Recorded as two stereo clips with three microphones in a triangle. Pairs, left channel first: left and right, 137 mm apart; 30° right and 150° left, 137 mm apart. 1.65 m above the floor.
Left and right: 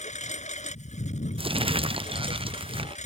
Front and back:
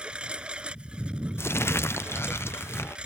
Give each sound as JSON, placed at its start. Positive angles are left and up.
{"t": 0.0, "sound": "a lawn mower", "azimuth_deg": 65}
{"t": 1.4, "sound": "crumpling", "azimuth_deg": -95}